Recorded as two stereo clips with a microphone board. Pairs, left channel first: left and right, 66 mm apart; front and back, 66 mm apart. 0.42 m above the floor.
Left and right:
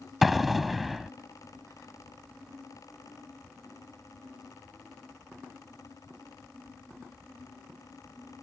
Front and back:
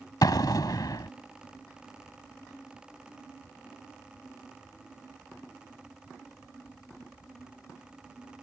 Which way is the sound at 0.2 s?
Straight ahead.